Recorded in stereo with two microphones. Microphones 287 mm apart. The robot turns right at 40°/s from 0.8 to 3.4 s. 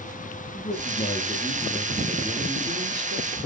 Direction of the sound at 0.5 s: 140° left.